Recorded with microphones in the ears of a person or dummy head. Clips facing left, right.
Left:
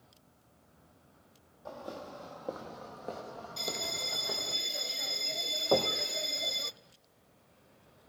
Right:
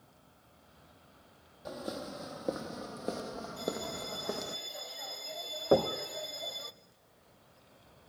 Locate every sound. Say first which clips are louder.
1.6 s footsteps: right 3 dB; 35° right (ahead or behind), 2.5 m; by 4.6 s 55° right (ahead or behind), 3 m
3.6 s a bell: right 4 dB; 40° left (ahead or behind), 0.6 m
5.7 s knocking: right 3 dB; 20° right (ahead or behind), 1.4 m